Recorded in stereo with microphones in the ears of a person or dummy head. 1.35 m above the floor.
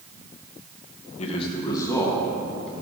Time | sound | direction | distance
1.2 | a man speaking | 40° left (ahead or behind) | 1.0 m